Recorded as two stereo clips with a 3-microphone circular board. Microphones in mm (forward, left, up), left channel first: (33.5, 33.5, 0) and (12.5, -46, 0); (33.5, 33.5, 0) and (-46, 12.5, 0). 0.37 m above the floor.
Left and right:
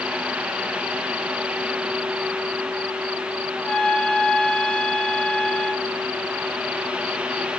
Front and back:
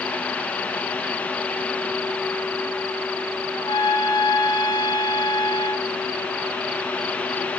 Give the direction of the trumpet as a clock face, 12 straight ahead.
12 o'clock.